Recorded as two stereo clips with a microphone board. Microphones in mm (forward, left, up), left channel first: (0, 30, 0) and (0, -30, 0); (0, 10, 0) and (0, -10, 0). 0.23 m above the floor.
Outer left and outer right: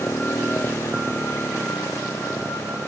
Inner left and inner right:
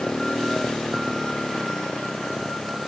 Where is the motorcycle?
40° left (ahead or behind).